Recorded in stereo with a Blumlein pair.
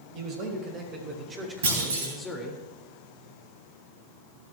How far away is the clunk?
About 3.5 m.